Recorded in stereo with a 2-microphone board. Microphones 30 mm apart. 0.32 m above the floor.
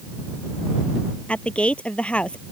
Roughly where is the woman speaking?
Left.